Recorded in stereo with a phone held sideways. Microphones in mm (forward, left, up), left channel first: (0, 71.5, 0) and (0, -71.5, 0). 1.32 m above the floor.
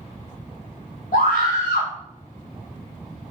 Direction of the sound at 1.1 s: 70° left (ahead or behind).